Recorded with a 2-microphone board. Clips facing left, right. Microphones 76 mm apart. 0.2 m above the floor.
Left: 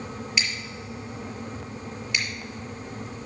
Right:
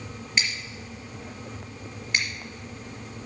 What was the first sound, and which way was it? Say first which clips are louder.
Scissors: right 3 dB; 35° right (ahead or behind).